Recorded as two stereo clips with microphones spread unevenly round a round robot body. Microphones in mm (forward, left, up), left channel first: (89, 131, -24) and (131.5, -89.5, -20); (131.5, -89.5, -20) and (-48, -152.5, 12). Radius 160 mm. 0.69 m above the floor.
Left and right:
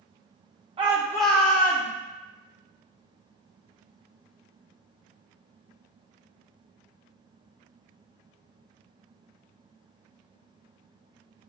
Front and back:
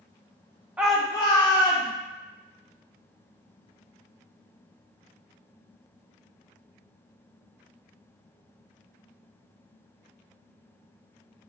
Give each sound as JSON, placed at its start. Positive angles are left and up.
{"t": 0.8, "sound": "a shout", "azimuth_deg": -65, "distance_m": 0.5}